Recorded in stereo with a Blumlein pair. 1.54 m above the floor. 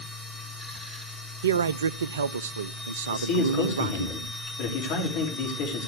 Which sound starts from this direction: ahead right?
A man speaking, at 1.4 s.